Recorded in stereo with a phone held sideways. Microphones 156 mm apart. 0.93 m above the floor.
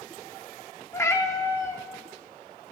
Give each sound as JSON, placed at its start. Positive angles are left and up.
{"t": 0.9, "sound": "a cat meowing", "side_deg": 15, "distance_m": 0.7}